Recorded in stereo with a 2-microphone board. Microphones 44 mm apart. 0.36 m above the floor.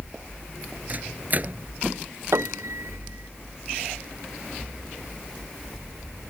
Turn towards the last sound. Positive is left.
turn(degrees=-85)